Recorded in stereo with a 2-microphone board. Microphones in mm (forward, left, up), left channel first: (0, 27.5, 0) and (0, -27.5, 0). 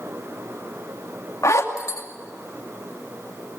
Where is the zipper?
70° left (ahead or behind), 2.5 m.